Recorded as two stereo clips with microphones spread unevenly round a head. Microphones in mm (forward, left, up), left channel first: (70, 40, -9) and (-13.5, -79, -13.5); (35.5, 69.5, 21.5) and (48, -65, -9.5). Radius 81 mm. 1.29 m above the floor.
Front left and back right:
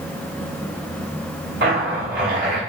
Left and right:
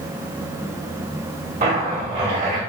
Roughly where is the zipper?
Behind right.